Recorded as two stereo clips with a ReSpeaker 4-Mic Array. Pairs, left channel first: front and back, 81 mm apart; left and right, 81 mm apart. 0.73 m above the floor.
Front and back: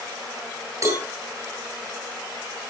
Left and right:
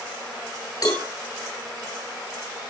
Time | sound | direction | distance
0.8 | a cowbell | 130° left | 9 m